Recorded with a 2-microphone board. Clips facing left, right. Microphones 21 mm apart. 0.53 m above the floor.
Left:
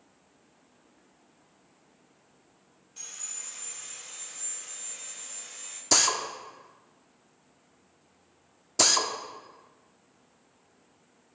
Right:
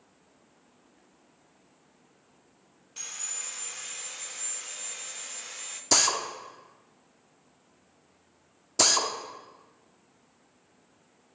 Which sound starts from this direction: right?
Sawing, at 3.0 s.